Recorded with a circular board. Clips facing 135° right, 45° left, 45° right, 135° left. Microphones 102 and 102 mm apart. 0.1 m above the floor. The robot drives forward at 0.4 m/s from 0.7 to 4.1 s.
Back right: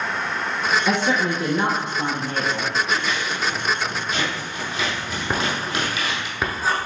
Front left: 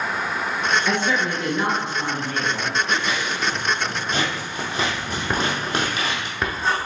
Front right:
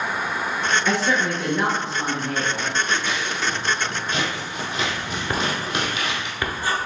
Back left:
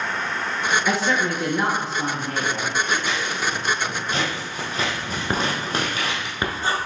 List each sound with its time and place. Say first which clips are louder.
0.9 s a woman speaking: back right 1 dB, front right 1 dB; 130° right, 1.2 m; by 2.7 s 160° right, 1.6 m
2.9 s scissors: even, even; 70° left, 1.8 m; by 6.3 s 90° left, 1.7 m
5.3 s writing: front left 1 dB, back left 1 dB; 140° left, 0.9 m